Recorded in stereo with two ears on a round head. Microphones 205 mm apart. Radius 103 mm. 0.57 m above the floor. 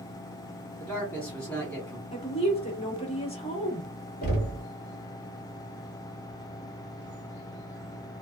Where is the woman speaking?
30° left (ahead or behind), 1.1 m.